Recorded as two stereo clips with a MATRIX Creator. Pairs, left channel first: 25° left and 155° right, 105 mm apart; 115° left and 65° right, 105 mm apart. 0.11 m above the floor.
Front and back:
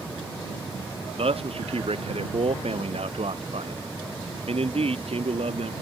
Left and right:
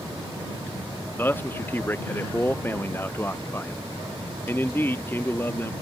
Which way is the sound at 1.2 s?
Straight behind.